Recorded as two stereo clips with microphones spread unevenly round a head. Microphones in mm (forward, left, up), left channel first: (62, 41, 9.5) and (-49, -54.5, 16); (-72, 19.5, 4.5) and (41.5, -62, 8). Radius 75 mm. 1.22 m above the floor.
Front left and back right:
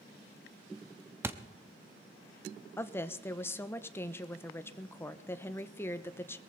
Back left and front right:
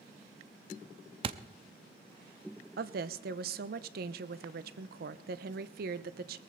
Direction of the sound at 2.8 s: 35° right.